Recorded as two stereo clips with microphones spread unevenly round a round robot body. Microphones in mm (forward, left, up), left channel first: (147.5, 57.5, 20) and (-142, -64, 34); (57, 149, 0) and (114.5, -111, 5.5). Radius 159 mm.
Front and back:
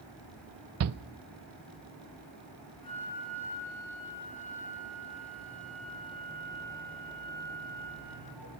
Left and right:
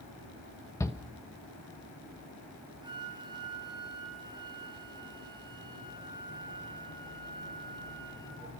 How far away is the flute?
About 5.5 m.